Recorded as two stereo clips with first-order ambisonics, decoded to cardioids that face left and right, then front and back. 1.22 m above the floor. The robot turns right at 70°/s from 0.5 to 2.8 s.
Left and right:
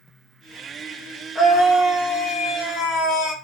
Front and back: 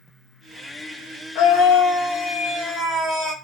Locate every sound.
1.4 s a scream: 5° left, 0.8 m; by 3.3 s 105° left, 0.8 m